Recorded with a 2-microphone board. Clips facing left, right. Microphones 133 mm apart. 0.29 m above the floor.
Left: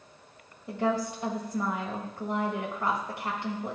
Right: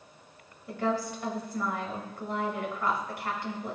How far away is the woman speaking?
About 1.5 m.